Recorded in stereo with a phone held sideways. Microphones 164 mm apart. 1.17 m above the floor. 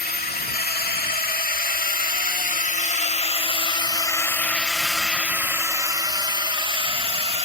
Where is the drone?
70° left (ahead or behind); by 7.5 s 35° right (ahead or behind).